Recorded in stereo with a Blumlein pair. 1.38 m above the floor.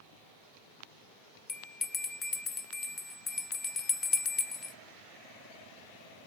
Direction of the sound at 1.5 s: 20° left.